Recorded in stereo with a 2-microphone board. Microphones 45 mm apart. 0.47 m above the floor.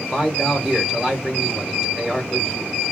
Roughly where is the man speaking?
Centre.